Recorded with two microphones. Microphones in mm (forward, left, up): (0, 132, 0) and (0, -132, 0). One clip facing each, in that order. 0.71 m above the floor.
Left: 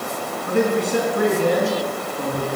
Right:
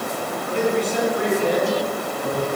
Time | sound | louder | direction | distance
0.5 | a man speaking | left 2 dB | 50° left (ahead or behind) | 5.5 m